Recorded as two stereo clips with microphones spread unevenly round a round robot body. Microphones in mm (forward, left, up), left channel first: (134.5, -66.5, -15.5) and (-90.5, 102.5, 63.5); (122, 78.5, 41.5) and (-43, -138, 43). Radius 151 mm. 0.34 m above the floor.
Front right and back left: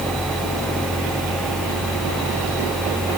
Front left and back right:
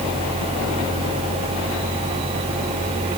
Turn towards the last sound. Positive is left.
No sound to turn to.